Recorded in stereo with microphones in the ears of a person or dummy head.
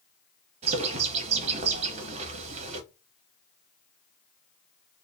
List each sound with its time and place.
0.6 s a bird: 35° right (ahead or behind), 0.8 m